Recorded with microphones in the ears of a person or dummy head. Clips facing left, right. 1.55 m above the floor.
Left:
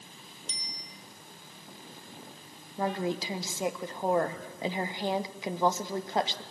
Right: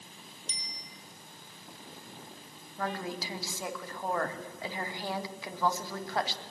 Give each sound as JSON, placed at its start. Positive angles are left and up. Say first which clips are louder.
{"t": 0.5, "sound": "a bicycle bell", "louder": "left 2 dB", "side_deg": -70, "distance_m": 3.0}
{"t": 2.8, "sound": "a woman speaking", "louder": "left 5 dB", "side_deg": 20, "distance_m": 1.5}